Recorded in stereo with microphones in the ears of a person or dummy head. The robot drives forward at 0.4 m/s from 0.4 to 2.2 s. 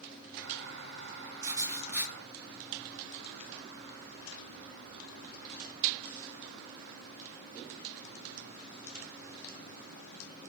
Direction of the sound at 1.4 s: 15° right (ahead or behind).